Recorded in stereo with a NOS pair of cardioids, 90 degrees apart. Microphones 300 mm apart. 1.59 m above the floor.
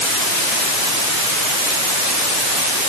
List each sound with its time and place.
Only background noise.